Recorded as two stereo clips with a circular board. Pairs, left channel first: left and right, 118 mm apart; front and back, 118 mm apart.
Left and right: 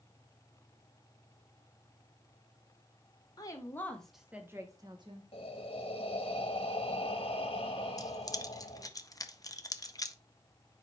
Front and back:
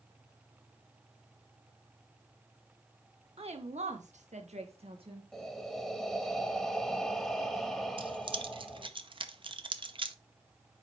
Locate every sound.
3.4 s a woman speaking: 145° left, 1.5 m; by 5.2 s 135° right, 1.9 m
5.3 s breathing: 85° left, 1.0 m
8.0 s keys jangling: 145° left, 0.6 m